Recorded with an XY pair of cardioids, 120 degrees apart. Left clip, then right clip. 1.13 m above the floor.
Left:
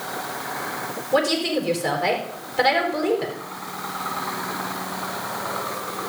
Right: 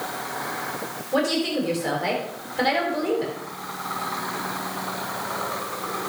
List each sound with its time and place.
1.1 s a woman speaking: 20° left, 4.5 m